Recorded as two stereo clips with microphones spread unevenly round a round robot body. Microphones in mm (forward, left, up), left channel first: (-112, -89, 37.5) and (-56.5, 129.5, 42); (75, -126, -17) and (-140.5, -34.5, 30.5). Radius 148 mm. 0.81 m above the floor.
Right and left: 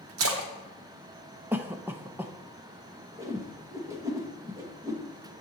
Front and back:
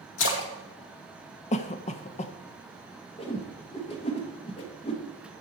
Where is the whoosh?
5° left, 1.2 m.